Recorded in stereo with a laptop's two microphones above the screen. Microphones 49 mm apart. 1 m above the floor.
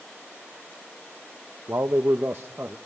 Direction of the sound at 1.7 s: 65° right (ahead or behind).